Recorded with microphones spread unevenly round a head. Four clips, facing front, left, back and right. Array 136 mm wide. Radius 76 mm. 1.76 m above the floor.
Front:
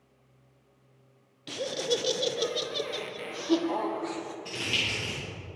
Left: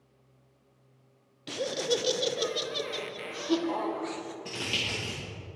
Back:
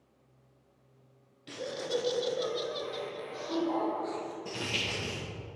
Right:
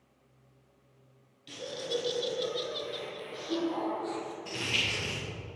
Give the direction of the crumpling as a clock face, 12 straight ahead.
8 o'clock.